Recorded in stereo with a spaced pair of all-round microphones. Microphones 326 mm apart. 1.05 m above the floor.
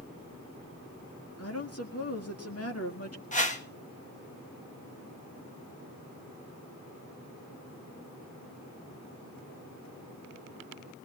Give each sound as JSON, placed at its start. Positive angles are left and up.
{"t": 1.4, "sound": "a woman speaking", "side_deg": 45, "distance_m": 1.9}
{"t": 3.3, "sound": "a whoosh", "side_deg": 20, "distance_m": 1.4}